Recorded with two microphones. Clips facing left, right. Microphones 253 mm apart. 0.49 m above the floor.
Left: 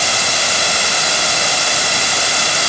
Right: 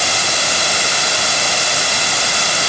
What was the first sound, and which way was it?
Only background noise.